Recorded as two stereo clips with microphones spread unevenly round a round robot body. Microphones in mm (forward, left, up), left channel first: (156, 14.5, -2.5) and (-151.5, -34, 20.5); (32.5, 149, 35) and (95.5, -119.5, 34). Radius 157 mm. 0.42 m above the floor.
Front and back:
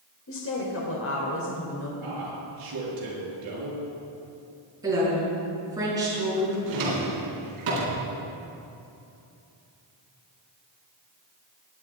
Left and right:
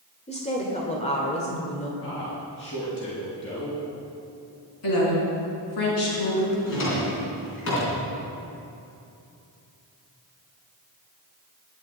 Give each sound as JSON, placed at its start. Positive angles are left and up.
{"t": 0.3, "sound": "a woman speaking", "azimuth_deg": 40, "distance_m": 1.9}
{"t": 2.0, "sound": "a man speaking", "azimuth_deg": 160, "distance_m": 6.0}
{"t": 4.8, "sound": "a woman speaking", "azimuth_deg": 110, "distance_m": 5.5}
{"t": 6.7, "sound": "a drawer", "azimuth_deg": 155, "distance_m": 3.5}